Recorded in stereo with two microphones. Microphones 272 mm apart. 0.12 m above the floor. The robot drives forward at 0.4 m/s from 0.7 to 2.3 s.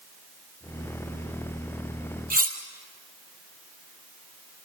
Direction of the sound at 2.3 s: 30° right (ahead or behind).